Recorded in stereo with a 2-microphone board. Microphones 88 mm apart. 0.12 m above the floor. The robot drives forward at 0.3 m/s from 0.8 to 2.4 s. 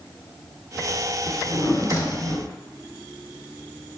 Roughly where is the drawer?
Left.